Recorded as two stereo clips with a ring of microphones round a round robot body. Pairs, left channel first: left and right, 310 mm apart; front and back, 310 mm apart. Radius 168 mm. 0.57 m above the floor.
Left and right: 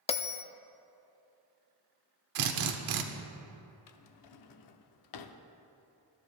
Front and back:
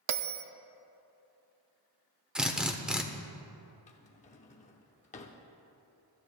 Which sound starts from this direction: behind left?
A bell, at 0.1 s.